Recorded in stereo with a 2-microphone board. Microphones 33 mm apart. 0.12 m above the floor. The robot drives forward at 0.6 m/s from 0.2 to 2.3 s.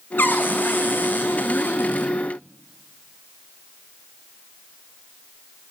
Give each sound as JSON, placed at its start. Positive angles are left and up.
{"t": 0.2, "sound": "a cupboard door", "side_deg": 85, "distance_m": 3.0}